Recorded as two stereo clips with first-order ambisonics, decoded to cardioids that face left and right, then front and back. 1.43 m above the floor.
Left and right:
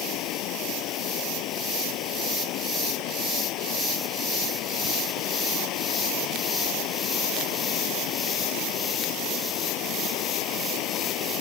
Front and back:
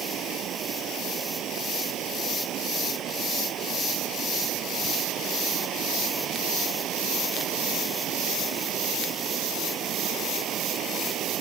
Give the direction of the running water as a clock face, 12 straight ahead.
8 o'clock.